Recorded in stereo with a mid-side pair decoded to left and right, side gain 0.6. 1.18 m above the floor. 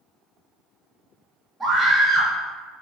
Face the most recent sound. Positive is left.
turn(degrees=-20)